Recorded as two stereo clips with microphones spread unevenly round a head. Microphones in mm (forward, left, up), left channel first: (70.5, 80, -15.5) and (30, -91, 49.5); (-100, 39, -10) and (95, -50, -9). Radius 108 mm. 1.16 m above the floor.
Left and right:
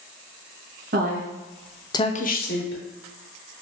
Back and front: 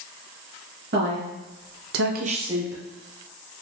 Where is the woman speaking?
70° right, 1.0 m; by 2.8 s 55° left, 1.1 m.